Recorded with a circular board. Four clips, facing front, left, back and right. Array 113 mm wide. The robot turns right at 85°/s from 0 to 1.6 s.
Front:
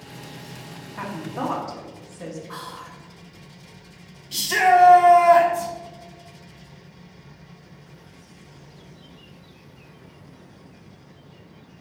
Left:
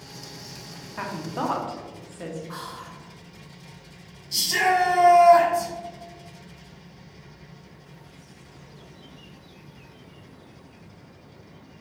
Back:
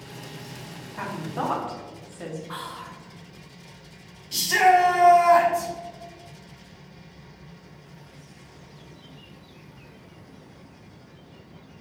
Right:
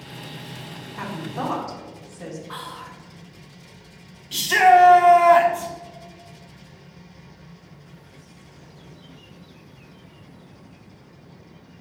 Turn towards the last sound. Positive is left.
turn(degrees=-80)